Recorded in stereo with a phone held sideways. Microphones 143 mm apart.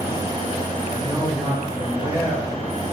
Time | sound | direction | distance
0.9 | a man speaking | 20° right (ahead or behind) | 1.3 m